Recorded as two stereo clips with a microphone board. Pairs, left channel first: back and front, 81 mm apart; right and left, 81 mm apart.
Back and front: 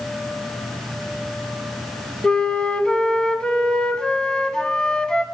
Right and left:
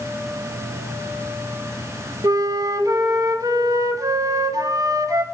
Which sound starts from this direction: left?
A flute, at 2.2 s.